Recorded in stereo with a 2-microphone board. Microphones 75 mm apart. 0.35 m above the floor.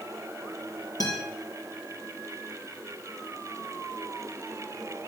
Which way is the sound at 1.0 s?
50° left (ahead or behind).